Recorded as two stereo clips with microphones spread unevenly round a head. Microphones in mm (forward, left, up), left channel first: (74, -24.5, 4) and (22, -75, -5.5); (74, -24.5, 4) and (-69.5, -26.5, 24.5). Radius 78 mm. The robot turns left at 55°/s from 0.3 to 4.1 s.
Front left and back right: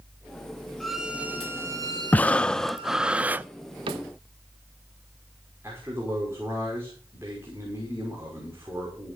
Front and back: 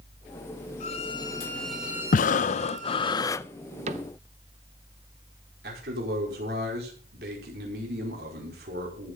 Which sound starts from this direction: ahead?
Breathing, at 2.1 s.